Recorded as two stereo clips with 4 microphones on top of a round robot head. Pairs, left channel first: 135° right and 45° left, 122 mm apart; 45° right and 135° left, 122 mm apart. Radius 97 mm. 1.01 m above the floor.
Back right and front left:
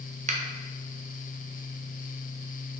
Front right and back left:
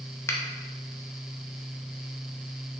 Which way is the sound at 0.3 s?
25° left.